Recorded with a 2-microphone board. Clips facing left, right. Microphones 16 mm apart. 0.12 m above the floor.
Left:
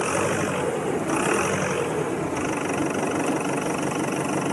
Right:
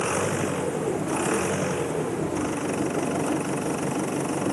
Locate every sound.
0.0 s an engine running: 30° left (ahead or behind)